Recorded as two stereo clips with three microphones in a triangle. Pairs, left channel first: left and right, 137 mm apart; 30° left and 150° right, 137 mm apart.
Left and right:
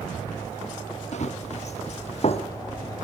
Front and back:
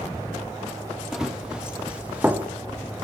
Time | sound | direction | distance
1.1 | running footsteps | 125° left | 5 m